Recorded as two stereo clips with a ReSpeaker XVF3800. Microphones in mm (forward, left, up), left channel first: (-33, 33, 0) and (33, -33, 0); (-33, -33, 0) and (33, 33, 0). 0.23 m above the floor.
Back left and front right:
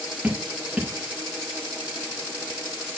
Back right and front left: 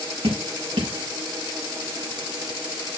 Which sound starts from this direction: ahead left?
Dripping, at 0.2 s.